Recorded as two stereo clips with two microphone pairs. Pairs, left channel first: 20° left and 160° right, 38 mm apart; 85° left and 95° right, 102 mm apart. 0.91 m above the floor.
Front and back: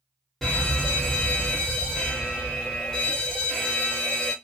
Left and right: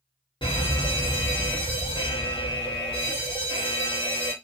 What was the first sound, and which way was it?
A fire alarm, 105° left.